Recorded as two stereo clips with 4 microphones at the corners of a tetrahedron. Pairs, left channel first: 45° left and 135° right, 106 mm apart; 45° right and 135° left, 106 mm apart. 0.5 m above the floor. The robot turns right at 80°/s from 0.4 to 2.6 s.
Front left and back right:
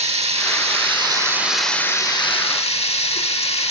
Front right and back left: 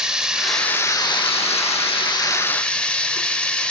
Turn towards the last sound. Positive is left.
turn(degrees=35)